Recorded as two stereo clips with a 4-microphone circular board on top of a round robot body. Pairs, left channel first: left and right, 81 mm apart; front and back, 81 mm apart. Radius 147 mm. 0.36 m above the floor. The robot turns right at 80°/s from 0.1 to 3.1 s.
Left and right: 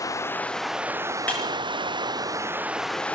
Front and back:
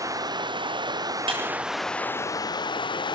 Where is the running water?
135° left, 0.9 m; by 3.1 s 15° left, 0.9 m.